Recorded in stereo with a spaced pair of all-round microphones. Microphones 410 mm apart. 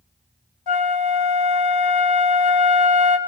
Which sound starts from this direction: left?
A flute, at 0.7 s.